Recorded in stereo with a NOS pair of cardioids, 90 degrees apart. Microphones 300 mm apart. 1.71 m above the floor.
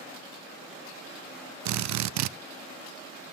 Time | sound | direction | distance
1.6 | a drill | 70° right | 0.6 m